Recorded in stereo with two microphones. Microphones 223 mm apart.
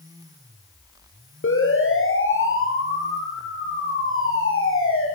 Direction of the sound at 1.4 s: 65° left (ahead or behind).